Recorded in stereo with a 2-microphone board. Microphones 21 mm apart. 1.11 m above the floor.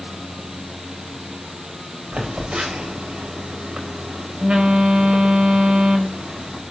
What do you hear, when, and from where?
2.1 s a phone buzzing: 65° right (ahead or behind), 5 m